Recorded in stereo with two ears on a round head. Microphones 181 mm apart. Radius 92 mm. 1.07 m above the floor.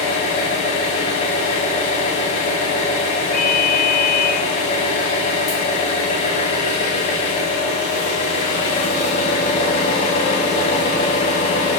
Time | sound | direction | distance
0.0 | an engine running | 30° left (ahead or behind) | 1.5 m
3.3 | a ringtone | 80° left | 1.0 m